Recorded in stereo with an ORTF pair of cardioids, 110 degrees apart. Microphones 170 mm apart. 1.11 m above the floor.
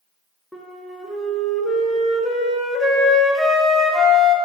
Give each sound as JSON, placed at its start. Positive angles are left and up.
{"t": 0.5, "sound": "a flute", "azimuth_deg": 0, "distance_m": 0.6}